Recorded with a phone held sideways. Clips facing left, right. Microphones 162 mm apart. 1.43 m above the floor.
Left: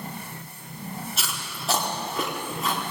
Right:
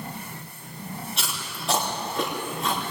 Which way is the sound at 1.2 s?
5° left (ahead or behind).